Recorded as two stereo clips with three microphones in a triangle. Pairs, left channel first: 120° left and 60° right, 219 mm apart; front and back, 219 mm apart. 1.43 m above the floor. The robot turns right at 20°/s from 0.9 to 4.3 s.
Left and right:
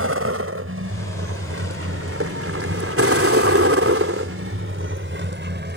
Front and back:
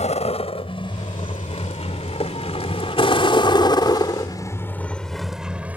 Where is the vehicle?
60° right; by 5.8 s 95° right.